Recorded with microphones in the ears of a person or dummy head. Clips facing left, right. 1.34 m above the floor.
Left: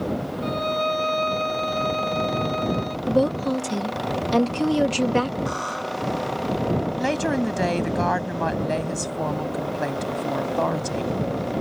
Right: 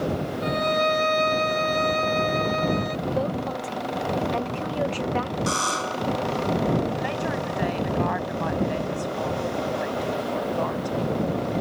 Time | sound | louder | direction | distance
0.4 | a violin | right 3 dB | 30° right (ahead or behind) | ?
3.1 | a woman speaking | left 9 dB | 60° left (ahead or behind) | ?
5.5 | a buzzer | right 1 dB | 60° right (ahead or behind) | ?
7.0 | a woman speaking | left 5 dB | 55° left (ahead or behind) | ?